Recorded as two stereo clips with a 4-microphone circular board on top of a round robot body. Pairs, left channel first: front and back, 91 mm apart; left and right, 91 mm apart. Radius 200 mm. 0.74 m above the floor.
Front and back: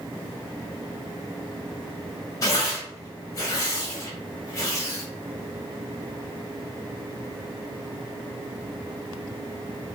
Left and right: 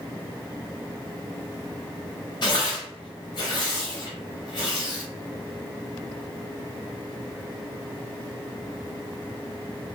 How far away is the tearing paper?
About 0.6 m.